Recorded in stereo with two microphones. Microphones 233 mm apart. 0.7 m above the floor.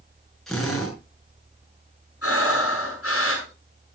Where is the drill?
Centre (ahead or behind), 7 m.